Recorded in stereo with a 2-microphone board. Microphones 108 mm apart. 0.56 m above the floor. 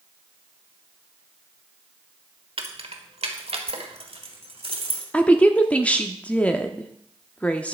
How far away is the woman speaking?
About 0.7 m.